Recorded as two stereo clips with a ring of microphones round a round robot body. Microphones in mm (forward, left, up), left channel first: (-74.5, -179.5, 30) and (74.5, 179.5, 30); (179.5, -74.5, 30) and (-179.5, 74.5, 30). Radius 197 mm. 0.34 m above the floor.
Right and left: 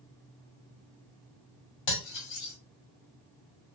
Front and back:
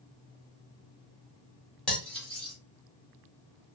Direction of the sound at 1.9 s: 110° right.